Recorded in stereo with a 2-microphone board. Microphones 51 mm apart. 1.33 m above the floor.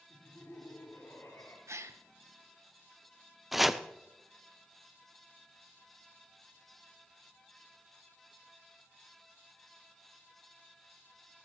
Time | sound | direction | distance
0.1 | laughter | 75° left (ahead or behind) | 4 m
1.7 | a gasp | 70° right (ahead or behind) | 0.7 m
3.5 | chopping | centre (ahead or behind) | 0.5 m